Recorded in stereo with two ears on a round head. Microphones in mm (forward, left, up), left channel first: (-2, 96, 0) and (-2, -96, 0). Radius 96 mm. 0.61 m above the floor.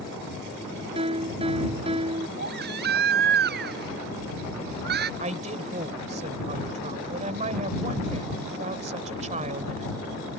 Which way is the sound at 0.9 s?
25° right (ahead or behind).